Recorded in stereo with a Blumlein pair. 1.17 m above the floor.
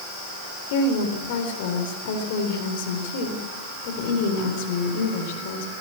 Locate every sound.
0.7 s a woman speaking: 50° left, 4 m